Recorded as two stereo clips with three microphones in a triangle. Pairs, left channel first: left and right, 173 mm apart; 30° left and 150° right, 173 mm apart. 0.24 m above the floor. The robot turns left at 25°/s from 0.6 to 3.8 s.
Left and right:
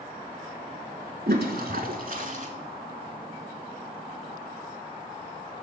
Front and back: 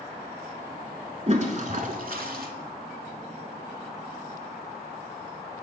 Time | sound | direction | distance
1.3 | a toilet flushing | 100° right | 0.7 m